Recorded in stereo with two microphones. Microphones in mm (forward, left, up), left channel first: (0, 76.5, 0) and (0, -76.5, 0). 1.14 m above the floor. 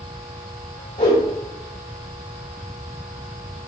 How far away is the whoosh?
About 3.5 m.